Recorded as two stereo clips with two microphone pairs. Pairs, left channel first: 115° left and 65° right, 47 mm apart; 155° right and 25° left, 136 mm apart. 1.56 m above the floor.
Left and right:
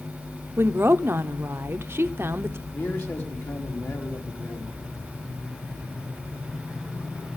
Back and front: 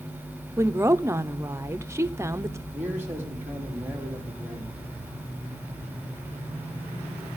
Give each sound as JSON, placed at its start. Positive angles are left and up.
{"t": 0.6, "sound": "a woman speaking", "azimuth_deg": -40, "distance_m": 0.8}
{"t": 2.7, "sound": "a man speaking", "azimuth_deg": 100, "distance_m": 3.0}